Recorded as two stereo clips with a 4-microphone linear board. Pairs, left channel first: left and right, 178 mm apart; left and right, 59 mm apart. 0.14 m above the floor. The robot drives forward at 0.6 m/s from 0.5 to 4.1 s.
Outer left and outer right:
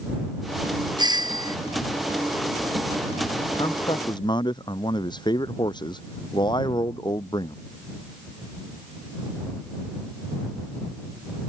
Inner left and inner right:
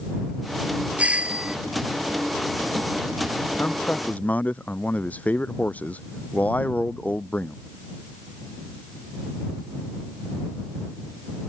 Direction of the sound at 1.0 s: 25° right (ahead or behind).